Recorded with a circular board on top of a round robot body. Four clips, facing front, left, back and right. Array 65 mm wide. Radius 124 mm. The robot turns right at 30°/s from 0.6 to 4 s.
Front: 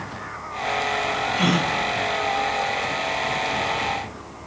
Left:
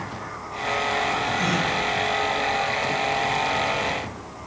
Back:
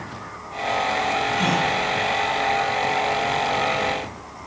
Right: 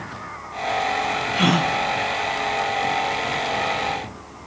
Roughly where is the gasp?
Right.